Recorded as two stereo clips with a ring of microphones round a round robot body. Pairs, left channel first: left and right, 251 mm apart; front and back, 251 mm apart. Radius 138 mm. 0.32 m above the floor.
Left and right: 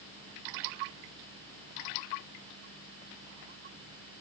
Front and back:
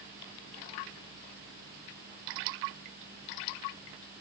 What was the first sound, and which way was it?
Only background noise.